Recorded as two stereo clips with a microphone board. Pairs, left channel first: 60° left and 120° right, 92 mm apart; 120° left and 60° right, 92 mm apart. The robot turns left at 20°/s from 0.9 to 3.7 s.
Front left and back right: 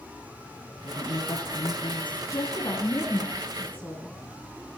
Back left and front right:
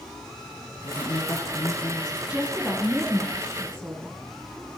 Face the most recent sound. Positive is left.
turn(degrees=-5)